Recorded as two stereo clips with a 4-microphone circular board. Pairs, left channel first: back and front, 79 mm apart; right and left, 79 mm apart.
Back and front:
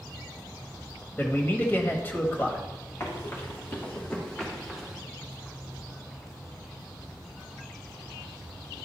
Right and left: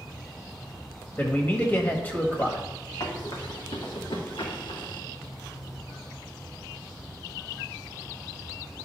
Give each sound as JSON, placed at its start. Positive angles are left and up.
{"t": 1.2, "sound": "a man speaking", "azimuth_deg": -135, "distance_m": 1.2}
{"t": 3.0, "sound": "running footsteps", "azimuth_deg": -120, "distance_m": 2.5}